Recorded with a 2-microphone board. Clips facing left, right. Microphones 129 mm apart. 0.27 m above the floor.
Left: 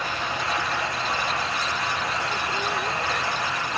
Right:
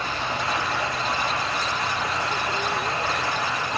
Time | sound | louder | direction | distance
0.0 | running water | right 1 dB | 65° right (ahead or behind) | 7.5 m